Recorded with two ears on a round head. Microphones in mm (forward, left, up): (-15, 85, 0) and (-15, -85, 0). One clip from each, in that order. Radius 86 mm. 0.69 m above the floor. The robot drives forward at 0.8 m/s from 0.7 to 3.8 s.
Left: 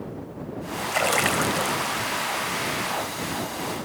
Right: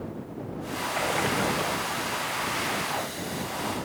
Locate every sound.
0.9 s a splash: 65° left (ahead or behind), 2.5 m; by 2.1 s 85° left, 2 m